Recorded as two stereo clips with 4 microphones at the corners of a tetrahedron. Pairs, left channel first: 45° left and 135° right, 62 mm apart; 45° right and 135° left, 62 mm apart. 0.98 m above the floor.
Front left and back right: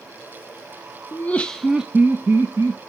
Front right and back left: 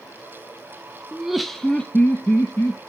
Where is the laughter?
65° left, 0.7 m; by 2.8 s 100° right, 1.2 m.